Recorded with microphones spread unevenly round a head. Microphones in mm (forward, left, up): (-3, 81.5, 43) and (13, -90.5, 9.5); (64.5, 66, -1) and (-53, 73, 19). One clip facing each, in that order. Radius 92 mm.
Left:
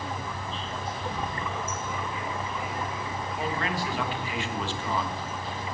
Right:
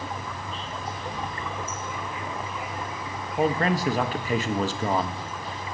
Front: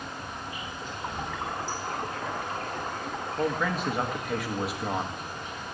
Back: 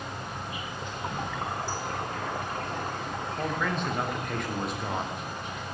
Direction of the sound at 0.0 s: 160° left.